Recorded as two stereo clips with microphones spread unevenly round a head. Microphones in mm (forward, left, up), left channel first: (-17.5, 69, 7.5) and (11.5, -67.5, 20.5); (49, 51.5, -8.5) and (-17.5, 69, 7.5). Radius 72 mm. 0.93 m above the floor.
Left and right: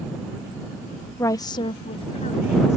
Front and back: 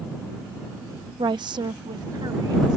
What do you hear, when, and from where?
1.2 s a woman speaking: 170° left; by 2.8 s 140° left